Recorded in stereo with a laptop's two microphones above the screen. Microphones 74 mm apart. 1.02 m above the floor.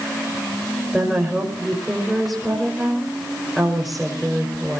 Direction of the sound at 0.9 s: 5° right (ahead or behind).